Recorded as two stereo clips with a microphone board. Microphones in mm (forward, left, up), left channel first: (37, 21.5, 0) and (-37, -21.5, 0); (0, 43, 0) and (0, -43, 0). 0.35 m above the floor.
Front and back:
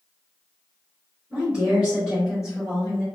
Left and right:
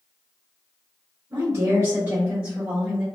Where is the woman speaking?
80° right, 1.8 m; by 3.0 s 40° right, 1.5 m.